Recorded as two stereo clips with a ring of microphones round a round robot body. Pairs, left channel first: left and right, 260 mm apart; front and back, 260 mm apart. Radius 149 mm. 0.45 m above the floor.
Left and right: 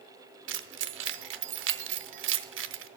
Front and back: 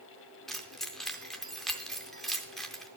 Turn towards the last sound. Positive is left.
turn(degrees=-90)